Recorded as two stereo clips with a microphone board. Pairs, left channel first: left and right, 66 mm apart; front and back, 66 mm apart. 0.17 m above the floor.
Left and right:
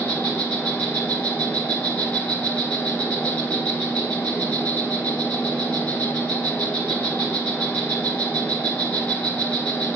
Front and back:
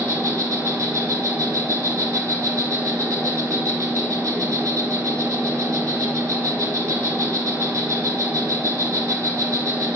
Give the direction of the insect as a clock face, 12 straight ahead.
7 o'clock.